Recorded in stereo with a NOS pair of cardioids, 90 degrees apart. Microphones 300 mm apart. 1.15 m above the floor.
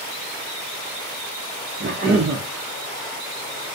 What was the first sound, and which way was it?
A cough, 35° right.